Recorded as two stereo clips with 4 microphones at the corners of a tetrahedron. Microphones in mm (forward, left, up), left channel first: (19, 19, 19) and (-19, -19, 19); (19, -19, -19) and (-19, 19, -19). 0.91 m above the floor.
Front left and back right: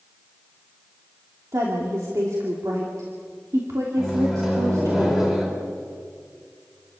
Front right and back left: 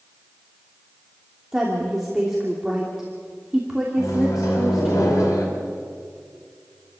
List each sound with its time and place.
1.5 s a woman speaking: 145° right, 3 m
4.0 s a microwave: 55° right, 5 m